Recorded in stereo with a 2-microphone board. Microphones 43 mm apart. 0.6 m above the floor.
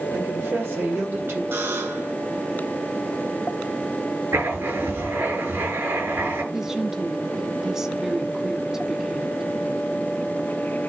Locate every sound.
0.1 s a woman speaking: 70° right (ahead or behind), 3.5 m
1.5 s a buzzer: 70° right (ahead or behind), 5 m
4.3 s writing: 85° right, 7 m
6.5 s a woman speaking: 10° right (ahead or behind), 1.4 m